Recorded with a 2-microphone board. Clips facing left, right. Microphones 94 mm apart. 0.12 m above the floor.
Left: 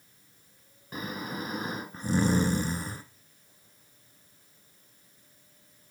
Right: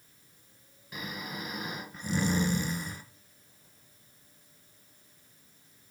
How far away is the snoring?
About 0.8 m.